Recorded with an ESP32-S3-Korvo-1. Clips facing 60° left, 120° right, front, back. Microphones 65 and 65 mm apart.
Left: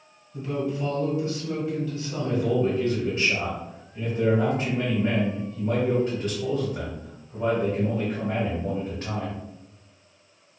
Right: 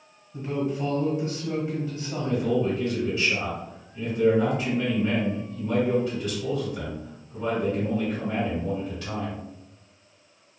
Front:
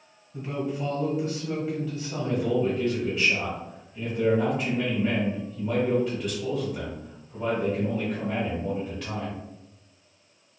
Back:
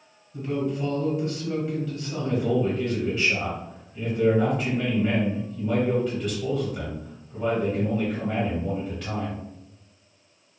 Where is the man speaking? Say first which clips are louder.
Left 1 dB, back 1 dB; 90° left, 1.5 m.